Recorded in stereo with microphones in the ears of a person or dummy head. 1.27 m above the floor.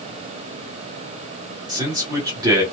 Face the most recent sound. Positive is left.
turn(degrees=-20)  # may be behind; listen again after turning